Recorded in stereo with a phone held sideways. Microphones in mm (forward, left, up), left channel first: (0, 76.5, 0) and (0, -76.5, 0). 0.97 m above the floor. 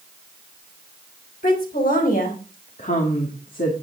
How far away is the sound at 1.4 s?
About 4 m.